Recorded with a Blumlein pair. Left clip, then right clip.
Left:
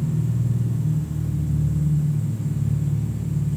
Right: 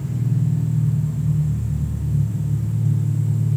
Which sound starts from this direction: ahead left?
An engine running, at 0.0 s.